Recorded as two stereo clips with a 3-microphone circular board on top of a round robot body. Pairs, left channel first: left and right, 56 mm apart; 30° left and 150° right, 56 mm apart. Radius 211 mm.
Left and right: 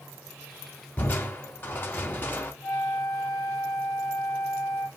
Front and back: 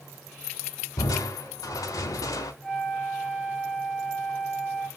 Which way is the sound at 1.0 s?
35° left.